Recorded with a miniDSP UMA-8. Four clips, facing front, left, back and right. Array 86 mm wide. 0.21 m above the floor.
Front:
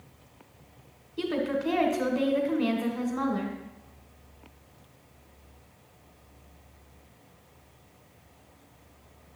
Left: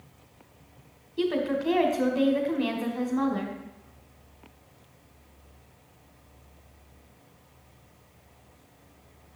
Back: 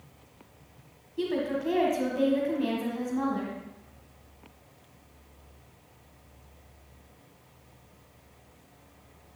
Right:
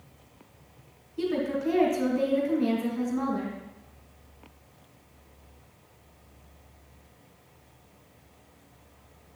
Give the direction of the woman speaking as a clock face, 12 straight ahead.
10 o'clock.